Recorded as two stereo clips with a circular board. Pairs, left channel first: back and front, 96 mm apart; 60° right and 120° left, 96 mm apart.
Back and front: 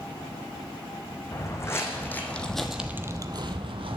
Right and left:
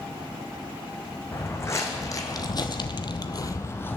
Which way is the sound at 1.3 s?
120° right.